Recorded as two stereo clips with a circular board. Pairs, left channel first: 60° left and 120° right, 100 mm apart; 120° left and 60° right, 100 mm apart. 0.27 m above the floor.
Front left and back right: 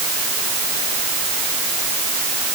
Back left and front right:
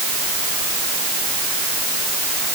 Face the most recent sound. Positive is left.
No sound to turn to.